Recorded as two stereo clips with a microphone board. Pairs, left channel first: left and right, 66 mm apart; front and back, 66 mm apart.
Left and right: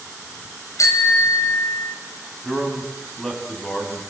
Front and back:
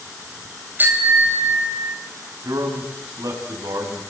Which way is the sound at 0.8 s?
120° left.